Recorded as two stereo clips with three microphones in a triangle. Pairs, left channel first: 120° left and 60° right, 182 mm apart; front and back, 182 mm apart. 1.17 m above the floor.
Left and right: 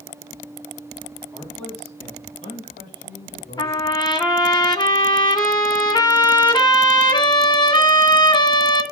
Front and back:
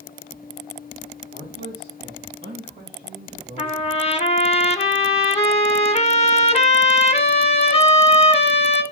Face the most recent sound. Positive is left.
turn(degrees=55)